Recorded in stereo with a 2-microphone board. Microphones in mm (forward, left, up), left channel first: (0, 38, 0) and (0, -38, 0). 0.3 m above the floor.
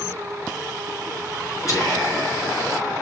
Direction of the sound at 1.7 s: 45° left (ahead or behind).